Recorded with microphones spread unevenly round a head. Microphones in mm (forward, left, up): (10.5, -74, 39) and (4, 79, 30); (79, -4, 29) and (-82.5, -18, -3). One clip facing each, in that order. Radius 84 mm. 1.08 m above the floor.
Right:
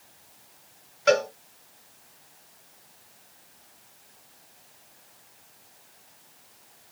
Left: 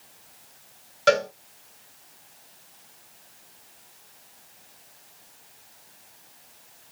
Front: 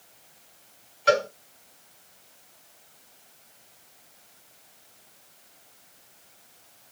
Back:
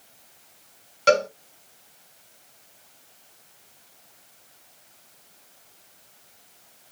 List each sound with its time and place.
1.1 s a cowbell: 145° left, 1.7 m